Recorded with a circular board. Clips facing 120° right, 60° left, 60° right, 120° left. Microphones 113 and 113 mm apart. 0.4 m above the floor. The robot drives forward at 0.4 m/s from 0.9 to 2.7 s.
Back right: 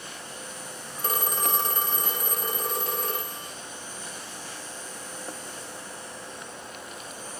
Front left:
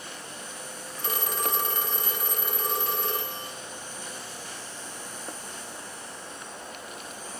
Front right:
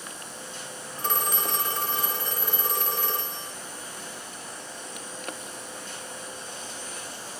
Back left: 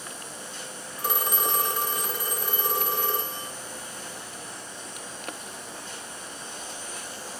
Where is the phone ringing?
160° right, 0.8 m; by 3.5 s 170° right, 1.4 m.